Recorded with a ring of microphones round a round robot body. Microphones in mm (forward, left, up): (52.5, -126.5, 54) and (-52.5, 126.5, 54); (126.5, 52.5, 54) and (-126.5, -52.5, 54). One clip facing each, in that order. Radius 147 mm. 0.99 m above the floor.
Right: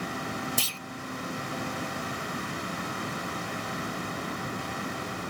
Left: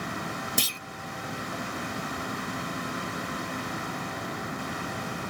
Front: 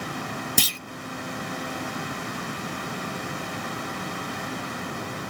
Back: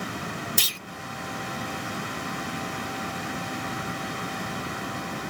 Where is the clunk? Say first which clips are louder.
Left 2 dB, front 8 dB; 40° left.